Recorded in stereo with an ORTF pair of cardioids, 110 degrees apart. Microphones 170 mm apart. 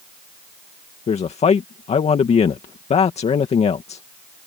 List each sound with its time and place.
1.1 s a man speaking: 40° left